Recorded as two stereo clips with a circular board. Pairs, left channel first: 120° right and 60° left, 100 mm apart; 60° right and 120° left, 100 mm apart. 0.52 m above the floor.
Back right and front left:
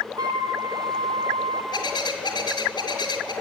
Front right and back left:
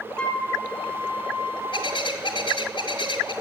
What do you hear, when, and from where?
0.2 s a flute: 20° left, 2 m
1.7 s a bird: 80° right, 2 m